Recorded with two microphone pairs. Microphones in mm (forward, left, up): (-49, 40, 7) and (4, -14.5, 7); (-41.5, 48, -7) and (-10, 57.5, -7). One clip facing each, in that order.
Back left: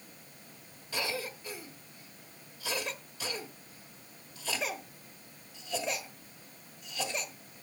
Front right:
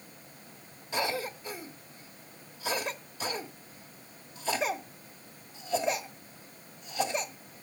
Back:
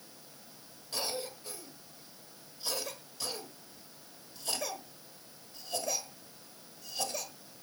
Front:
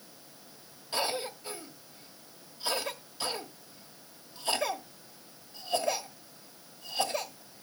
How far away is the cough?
About 1.2 m.